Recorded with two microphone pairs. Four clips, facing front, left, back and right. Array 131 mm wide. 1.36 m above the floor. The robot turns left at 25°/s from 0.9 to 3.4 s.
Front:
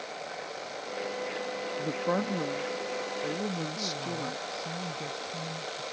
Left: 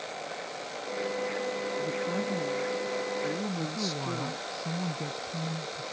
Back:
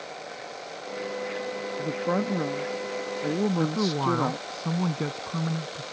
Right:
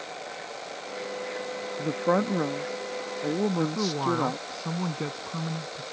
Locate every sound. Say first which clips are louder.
1.8 s a woman speaking: right 11 dB, back 3 dB; 85° right; by 4.6 s 125° right
3.6 s a man speaking: right 6 dB, back 10 dB; 140° right